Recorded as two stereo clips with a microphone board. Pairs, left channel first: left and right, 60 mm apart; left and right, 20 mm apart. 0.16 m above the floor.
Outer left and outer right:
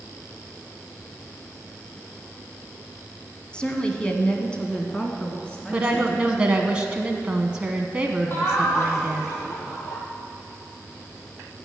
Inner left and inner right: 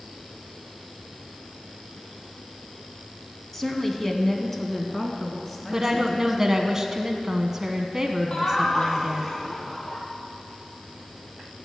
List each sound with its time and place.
3.5 s a woman speaking: 15° left (ahead or behind), 1.3 m; by 6.4 s 10° left (ahead or behind), 2.5 m
5.7 s a woman speaking: 15° right (ahead or behind), 1.0 m
8.3 s laughter: 40° left (ahead or behind), 5 m